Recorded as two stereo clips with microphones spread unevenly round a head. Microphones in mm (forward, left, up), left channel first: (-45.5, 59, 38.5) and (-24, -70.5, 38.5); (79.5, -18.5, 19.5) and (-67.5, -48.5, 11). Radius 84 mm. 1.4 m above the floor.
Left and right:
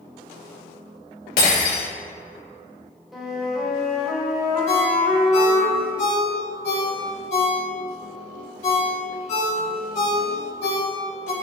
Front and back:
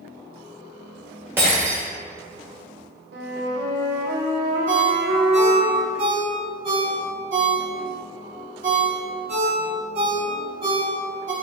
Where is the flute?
170° right, 1.4 m.